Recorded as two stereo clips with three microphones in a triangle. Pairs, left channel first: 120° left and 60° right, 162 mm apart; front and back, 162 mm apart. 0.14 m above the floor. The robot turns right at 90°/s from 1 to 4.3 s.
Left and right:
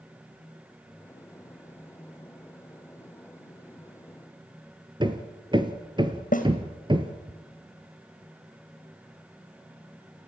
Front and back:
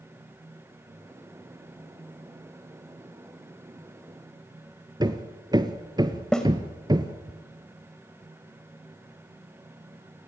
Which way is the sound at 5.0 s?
115° right.